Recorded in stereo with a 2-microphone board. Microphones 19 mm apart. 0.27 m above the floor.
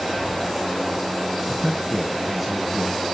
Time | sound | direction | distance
1.5 | a man speaking | centre (ahead or behind) | 2 m